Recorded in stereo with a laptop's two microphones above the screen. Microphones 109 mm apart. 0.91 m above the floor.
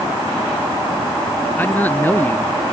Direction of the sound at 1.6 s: 15° left (ahead or behind).